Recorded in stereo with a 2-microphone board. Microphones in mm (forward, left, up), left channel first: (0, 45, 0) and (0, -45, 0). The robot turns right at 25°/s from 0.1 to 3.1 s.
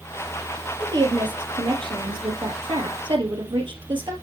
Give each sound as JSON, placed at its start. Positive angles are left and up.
{"t": 0.8, "sound": "a woman speaking", "azimuth_deg": -130, "distance_m": 3.0}